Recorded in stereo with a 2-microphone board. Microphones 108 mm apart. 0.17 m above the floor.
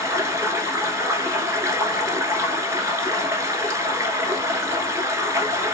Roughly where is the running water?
Right.